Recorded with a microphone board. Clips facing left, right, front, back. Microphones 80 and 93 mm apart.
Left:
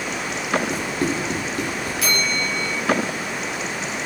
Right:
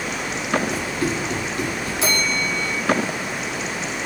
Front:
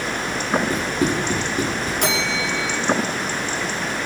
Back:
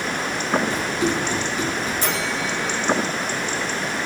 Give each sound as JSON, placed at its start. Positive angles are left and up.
{"t": 0.7, "sound": "running footsteps", "azimuth_deg": 45, "distance_m": 7.5}
{"t": 2.0, "sound": "a bell", "azimuth_deg": -30, "distance_m": 4.0}